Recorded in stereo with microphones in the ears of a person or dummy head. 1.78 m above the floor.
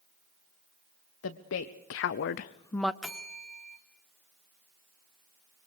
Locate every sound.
1.2 s a woman speaking: 75° left (ahead or behind), 1.3 m; by 2.9 s centre (ahead or behind), 0.5 m
3.0 s a bell: 5° left (ahead or behind), 1.3 m